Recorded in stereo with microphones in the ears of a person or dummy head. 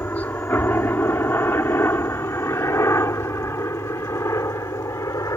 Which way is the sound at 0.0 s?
10° left (ahead or behind).